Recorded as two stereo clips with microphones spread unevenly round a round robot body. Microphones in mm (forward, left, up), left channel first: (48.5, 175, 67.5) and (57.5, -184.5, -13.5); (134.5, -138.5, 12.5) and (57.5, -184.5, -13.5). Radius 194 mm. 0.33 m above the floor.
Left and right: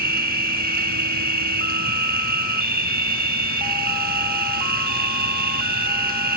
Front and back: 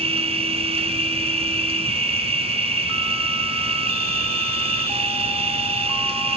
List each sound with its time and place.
0.0 s an insect: 160° right, 0.7 m